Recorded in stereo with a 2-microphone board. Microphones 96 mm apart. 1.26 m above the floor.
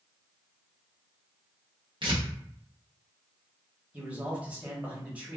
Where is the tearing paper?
55° right (ahead or behind), 0.9 m.